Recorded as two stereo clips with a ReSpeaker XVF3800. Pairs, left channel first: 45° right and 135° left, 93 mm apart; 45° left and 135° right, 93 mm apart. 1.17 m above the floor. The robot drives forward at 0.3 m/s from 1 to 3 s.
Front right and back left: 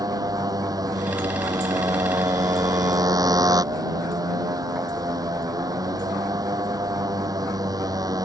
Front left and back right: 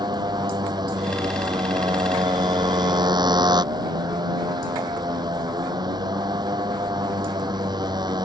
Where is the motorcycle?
175° right.